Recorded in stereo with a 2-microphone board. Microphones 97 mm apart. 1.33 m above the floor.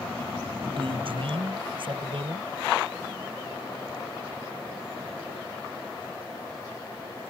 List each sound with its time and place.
0.7 s a man speaking: 65° right (ahead or behind)